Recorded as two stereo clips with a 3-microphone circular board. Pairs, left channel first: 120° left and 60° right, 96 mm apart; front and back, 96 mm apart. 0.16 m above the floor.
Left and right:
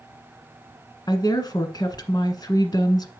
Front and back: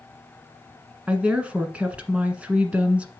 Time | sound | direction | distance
1.1 | a woman speaking | 110° left | 1.5 m